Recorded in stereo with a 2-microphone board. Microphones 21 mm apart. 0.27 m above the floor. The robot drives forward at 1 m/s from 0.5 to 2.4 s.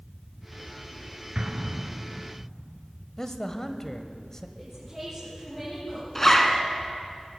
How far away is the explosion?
About 1.8 m.